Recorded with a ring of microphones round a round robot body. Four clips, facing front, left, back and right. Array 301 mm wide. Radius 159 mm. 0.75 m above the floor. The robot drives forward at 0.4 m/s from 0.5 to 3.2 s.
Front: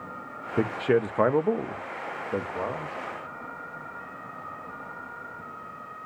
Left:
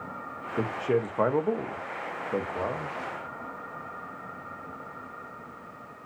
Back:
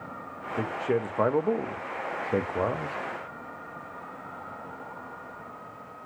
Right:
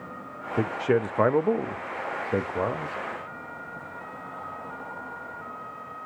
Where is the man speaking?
30° right, 1.0 m; by 3.0 s 150° right, 1.0 m.